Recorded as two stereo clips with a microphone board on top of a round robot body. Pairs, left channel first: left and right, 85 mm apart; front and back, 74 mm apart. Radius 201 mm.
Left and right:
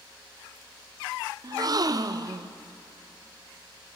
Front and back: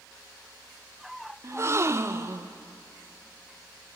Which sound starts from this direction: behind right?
A gasp, at 1.4 s.